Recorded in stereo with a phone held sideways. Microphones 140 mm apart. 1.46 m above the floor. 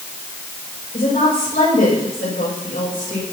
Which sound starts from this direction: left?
A woman speaking, at 0.9 s.